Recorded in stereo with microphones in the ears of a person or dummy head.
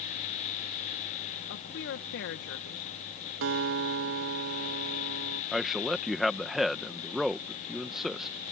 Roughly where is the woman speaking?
Left.